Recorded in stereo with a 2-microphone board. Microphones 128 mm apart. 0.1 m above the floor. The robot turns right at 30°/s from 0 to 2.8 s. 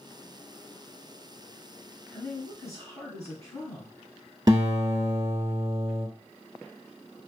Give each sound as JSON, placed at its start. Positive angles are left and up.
{"t": 2.1, "sound": "a woman speaking", "side_deg": 15, "distance_m": 1.9}
{"t": 4.5, "sound": "a guitar", "side_deg": -30, "distance_m": 1.0}